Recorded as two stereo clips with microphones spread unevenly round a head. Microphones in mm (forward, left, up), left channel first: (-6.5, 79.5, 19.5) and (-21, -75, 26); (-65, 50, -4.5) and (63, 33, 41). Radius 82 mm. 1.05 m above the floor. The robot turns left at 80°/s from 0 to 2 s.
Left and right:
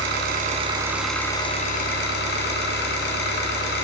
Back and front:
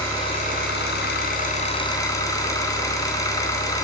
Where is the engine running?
100° right, 2.5 m; by 3.9 s 100° left, 2.5 m.